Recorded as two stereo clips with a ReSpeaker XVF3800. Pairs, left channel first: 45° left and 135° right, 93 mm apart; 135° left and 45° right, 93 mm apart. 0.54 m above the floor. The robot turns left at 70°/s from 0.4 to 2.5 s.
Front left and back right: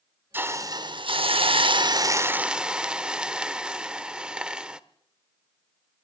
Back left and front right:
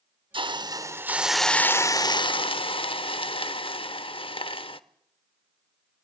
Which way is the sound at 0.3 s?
70° right.